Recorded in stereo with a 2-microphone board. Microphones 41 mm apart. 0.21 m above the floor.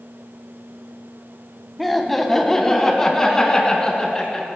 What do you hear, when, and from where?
1.8 s laughter: centre (ahead or behind), 1.1 m; by 4.5 s 20° left (ahead or behind), 2.5 m